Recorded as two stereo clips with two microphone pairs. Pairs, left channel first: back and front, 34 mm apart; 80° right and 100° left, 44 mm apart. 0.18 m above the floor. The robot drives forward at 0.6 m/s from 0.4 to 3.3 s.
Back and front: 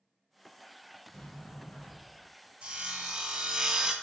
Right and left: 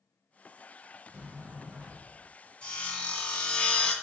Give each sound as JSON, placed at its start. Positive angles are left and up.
{"t": 1.1, "sound": "a sliding door", "azimuth_deg": 165, "distance_m": 1.4}
{"t": 2.6, "sound": "sawing", "azimuth_deg": -25, "distance_m": 1.3}